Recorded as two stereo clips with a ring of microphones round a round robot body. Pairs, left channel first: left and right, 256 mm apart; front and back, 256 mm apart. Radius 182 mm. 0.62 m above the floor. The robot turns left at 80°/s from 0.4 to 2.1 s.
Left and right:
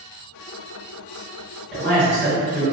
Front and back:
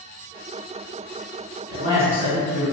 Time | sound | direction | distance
1.7 | a man speaking | straight behind | 1.2 m